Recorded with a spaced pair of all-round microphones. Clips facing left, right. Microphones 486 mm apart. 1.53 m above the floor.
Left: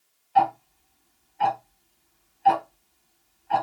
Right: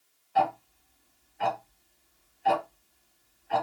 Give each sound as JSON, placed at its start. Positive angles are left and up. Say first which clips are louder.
{"t": 0.3, "sound": "ticking", "louder": "left 4 dB", "side_deg": 15, "distance_m": 0.8}